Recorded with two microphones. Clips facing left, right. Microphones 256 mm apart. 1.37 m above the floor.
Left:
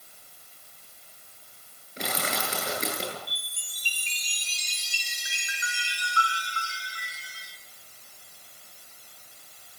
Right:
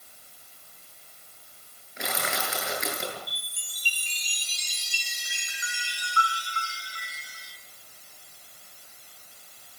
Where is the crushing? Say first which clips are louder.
Left 1 dB; 35° left (ahead or behind), 10 m.